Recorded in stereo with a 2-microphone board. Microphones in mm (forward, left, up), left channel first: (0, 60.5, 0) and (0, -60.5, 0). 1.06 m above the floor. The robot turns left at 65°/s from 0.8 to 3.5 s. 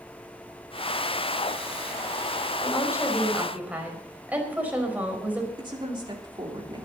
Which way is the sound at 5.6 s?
40° right (ahead or behind).